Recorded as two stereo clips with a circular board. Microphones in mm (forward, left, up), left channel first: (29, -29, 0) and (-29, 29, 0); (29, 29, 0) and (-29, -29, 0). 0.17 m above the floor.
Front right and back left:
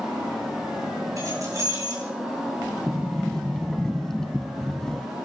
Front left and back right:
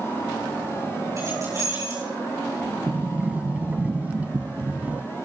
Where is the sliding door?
115° right, 0.5 m.